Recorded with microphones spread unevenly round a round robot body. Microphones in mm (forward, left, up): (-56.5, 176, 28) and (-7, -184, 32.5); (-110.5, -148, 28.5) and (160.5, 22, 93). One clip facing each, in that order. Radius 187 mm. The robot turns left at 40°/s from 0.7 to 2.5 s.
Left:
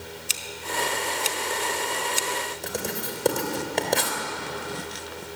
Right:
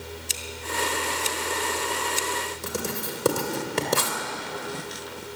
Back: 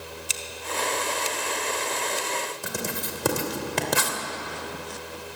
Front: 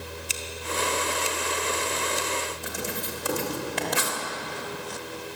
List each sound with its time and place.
0.3 s scissors: 175° left, 1.4 m; by 2.3 s 110° left, 1.4 m
2.6 s writing: 155° right, 3 m